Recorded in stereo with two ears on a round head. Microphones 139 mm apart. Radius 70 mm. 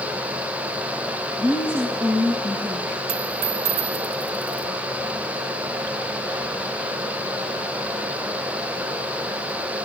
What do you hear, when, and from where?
1.4 s a woman speaking: 5° right (ahead or behind), 5 m
3.1 s a dropped coin: 60° right (ahead or behind), 1.8 m